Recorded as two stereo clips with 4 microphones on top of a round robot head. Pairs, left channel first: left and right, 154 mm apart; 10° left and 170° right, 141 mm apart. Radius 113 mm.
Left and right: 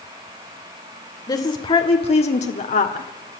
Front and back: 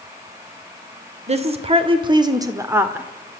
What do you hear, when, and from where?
1.3 s a woman speaking: 155° left, 2 m; by 3.4 s 105° left, 1.9 m